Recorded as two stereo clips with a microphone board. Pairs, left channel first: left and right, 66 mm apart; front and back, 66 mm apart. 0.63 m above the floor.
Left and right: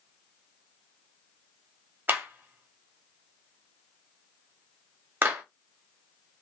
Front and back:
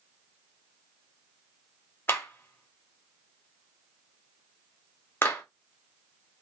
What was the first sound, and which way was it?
A clap, 40° right.